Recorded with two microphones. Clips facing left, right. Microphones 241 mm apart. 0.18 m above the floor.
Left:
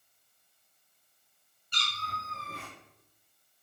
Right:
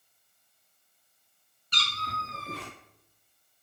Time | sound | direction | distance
1.7 | a cat meowing | 85° right | 1.2 m